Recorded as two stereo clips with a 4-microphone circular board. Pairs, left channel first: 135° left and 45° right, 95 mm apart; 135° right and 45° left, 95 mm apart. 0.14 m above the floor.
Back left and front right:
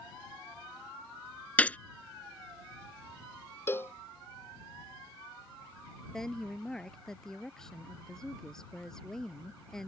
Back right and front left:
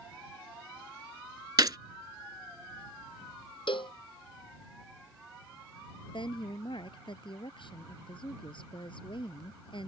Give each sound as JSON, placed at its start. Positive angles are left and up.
{"t": 1.6, "sound": "a gunshot", "azimuth_deg": 65}
{"t": 3.7, "sound": "a cowbell", "azimuth_deg": -160}
{"t": 6.1, "sound": "a woman speaking", "azimuth_deg": -140}